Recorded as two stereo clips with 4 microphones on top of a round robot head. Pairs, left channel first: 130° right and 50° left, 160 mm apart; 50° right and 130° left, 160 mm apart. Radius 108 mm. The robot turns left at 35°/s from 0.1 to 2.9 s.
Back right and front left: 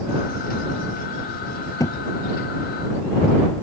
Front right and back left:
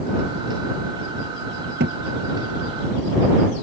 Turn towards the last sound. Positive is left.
turn(degrees=120)